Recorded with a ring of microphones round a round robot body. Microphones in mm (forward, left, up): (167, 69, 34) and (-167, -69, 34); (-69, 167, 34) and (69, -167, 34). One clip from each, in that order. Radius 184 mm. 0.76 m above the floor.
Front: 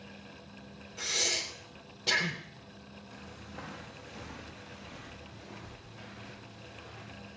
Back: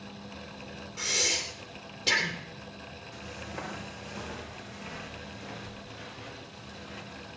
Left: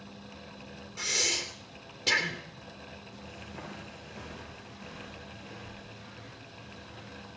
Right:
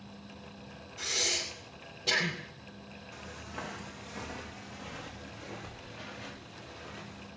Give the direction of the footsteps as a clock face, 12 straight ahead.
4 o'clock.